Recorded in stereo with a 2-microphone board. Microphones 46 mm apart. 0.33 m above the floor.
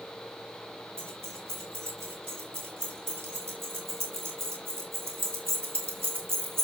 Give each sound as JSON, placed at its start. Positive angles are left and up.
{"t": 1.0, "sound": "keys jangling", "side_deg": -75, "distance_m": 7.0}